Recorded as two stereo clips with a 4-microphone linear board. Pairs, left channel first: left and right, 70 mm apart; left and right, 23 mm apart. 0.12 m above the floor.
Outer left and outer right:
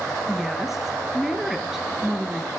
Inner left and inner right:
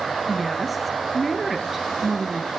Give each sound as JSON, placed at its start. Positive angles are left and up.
{"t": 0.3, "sound": "a woman speaking", "side_deg": -5, "distance_m": 1.8}